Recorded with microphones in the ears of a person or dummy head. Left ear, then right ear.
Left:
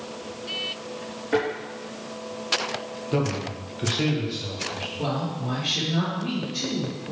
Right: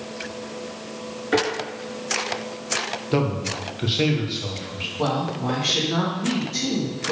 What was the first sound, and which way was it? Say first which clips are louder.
A thud: right 3 dB; 20° right (ahead or behind).